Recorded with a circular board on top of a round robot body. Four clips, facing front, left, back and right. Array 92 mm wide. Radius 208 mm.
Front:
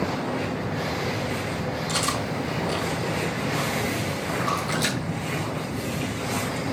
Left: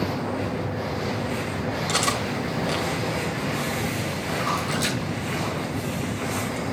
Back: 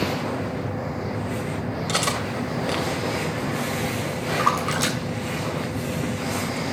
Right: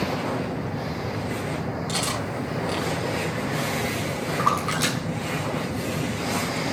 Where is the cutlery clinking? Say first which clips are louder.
Left 3 dB, back 3 dB; 160° left, 3 m.